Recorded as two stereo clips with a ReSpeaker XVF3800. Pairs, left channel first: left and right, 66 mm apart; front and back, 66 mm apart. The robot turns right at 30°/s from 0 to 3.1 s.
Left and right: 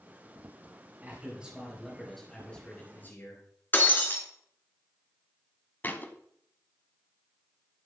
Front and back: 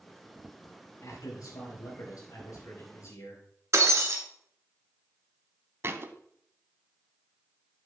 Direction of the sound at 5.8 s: 140° left.